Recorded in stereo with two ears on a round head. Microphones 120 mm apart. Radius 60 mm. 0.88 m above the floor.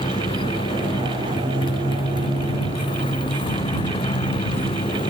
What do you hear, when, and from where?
0.0 s a motorcycle: 35° left (ahead or behind)